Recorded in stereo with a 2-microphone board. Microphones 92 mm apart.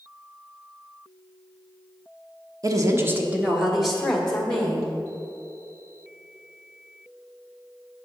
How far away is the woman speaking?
About 1.1 m.